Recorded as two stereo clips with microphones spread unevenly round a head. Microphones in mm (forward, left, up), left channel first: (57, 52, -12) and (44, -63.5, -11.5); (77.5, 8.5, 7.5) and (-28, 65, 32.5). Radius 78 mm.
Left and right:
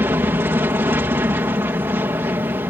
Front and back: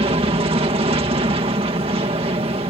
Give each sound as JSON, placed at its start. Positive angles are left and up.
{"t": 0.0, "sound": "an aircraft", "azimuth_deg": -165}